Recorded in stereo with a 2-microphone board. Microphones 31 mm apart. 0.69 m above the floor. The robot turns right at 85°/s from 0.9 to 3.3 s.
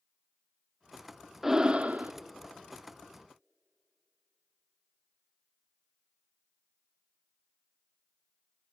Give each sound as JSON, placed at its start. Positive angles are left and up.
{"t": 1.4, "sound": "breathing", "azimuth_deg": -170, "distance_m": 0.5}